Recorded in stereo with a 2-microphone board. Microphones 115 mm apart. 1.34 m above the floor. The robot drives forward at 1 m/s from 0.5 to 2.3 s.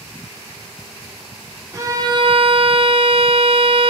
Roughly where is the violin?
Right.